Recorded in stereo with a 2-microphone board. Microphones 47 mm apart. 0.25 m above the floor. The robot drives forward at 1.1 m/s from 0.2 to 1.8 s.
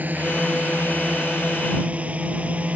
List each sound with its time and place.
0.0 s a drone: 40° right (ahead or behind); by 2.8 s 30° right (ahead or behind)